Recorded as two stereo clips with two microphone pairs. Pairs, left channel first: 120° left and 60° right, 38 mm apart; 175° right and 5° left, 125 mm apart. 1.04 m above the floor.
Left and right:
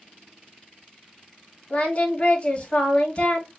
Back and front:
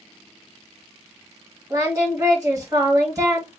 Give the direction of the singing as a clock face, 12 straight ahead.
10 o'clock.